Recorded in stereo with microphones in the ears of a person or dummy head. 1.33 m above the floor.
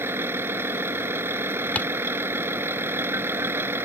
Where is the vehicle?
15° right (ahead or behind).